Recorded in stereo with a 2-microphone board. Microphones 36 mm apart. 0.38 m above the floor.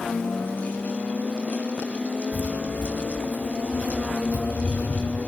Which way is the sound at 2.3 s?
60° left (ahead or behind).